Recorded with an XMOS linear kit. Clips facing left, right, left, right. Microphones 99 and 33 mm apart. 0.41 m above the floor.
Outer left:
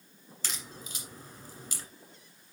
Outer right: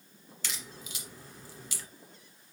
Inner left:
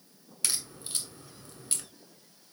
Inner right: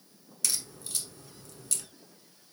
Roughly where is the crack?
Left.